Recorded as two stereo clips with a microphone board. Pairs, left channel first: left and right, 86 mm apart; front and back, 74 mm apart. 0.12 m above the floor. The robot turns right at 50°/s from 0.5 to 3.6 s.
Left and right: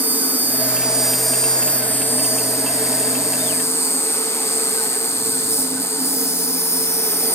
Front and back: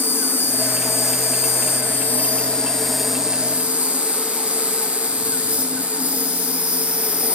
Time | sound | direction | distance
0.0 | an insect | 35° right | 0.8 m